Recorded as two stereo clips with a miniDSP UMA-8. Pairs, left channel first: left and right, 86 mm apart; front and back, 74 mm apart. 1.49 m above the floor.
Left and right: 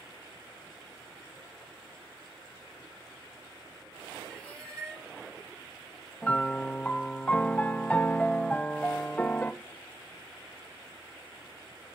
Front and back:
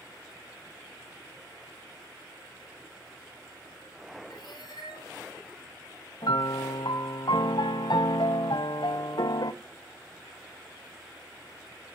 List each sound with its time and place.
4.3 s a cat meowing: 5° left, 8.5 m
6.2 s a piano: 15° left, 0.7 m